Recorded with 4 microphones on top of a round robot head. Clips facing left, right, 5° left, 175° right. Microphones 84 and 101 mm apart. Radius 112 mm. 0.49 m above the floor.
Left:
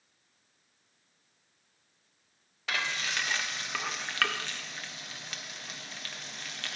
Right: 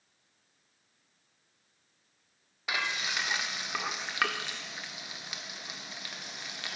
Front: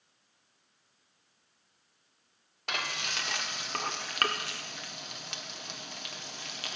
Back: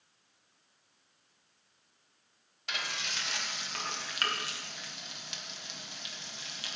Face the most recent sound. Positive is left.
turn(degrees=-15)